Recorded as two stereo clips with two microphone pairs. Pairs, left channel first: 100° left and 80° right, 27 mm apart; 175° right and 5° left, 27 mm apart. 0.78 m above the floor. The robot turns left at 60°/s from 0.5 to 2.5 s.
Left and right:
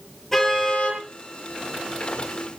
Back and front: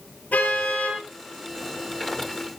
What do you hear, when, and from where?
0.3 s a car horn: straight behind, 8 m; by 1.0 s 150° left, 8 m